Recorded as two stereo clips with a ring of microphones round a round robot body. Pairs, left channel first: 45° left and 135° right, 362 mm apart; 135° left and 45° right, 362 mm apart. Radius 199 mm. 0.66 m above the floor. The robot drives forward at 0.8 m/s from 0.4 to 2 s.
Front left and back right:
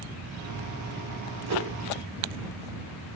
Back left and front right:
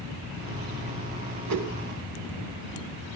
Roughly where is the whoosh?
Right.